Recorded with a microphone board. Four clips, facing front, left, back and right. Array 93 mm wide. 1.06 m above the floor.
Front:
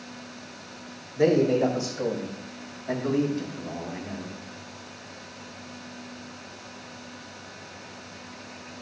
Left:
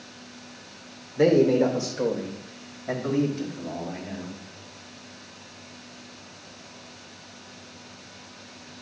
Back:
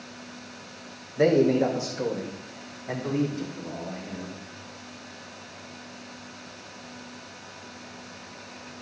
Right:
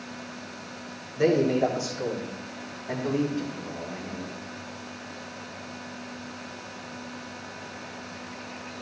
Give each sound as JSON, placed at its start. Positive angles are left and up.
{"t": 1.2, "sound": "a man speaking", "azimuth_deg": 110, "distance_m": 3.0}